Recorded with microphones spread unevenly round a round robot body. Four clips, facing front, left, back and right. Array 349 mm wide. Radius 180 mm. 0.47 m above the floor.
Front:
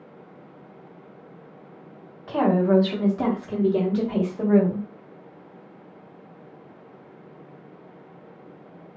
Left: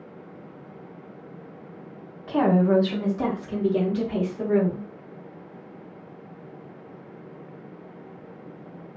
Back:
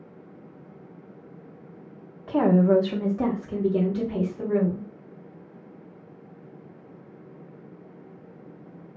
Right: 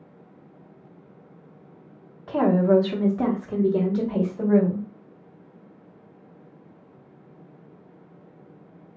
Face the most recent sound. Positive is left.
turn(degrees=-20)